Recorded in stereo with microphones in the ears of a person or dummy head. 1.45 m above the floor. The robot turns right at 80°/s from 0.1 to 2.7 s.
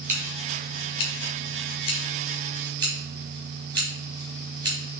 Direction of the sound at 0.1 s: 10° right (ahead or behind).